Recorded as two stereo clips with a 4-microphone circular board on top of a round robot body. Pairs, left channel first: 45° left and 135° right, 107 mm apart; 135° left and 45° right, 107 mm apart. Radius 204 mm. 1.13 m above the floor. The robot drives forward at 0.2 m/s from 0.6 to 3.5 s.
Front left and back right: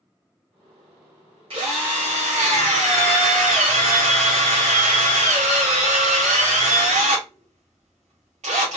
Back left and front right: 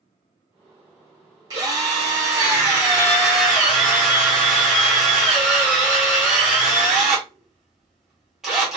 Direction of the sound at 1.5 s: 100° right.